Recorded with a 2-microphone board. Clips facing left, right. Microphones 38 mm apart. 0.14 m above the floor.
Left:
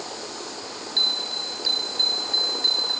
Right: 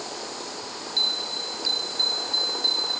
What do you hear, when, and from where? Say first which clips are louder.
1.0 s a bell: left 2 dB; 20° left (ahead or behind)